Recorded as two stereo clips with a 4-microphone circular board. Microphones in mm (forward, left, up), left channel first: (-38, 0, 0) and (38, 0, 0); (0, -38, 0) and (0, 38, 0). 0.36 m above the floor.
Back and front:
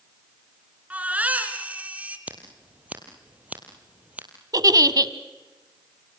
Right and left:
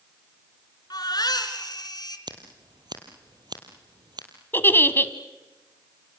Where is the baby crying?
70° right, 3 m.